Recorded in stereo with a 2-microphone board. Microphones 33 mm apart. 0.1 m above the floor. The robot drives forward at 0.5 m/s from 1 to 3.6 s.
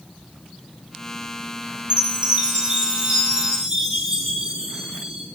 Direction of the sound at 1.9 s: 35° right (ahead or behind).